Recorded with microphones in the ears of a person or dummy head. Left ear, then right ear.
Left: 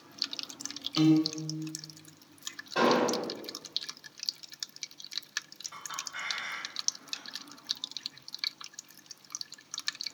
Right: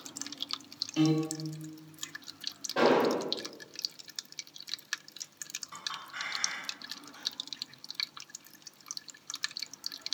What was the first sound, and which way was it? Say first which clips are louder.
A piano: left 4 dB; 25° left (ahead or behind).